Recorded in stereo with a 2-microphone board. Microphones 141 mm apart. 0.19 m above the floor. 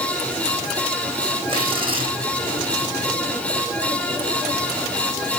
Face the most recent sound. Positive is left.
turn(degrees=-40)  # may be behind; listen again after turning